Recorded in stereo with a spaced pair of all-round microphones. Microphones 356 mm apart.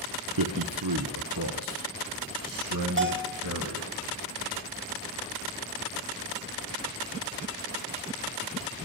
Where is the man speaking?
75° right (ahead or behind), 1.1 m; by 3.9 s 60° right (ahead or behind), 2.5 m.